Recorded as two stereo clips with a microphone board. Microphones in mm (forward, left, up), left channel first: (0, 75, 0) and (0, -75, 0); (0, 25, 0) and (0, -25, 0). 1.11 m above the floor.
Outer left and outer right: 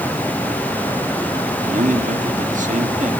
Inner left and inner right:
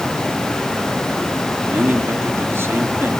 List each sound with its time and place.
1.6 s a man speaking: 60° right (ahead or behind), 2.5 m